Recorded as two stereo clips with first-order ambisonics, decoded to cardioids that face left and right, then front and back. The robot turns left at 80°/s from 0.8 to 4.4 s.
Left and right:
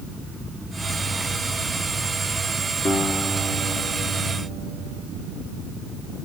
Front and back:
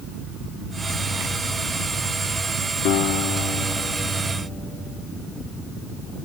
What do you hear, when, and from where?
2.9 s a guitar: 25° left, 2.5 m; by 5.0 s 95° right, 2.5 m